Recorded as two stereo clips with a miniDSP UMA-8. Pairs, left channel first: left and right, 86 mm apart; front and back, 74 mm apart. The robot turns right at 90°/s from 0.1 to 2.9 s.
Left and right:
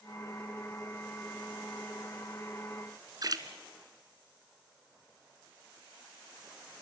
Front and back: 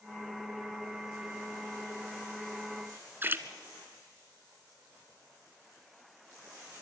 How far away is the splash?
About 1.1 m.